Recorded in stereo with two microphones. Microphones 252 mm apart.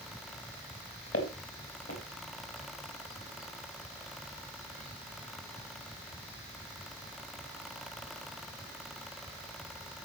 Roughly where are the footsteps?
Left.